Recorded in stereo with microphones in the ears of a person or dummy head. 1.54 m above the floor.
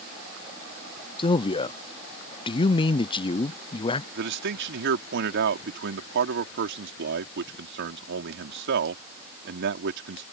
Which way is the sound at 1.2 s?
25° left (ahead or behind).